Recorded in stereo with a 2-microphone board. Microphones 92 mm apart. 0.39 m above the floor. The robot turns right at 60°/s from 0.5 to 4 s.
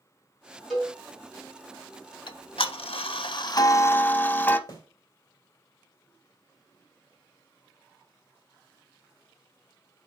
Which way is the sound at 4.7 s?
35° left (ahead or behind).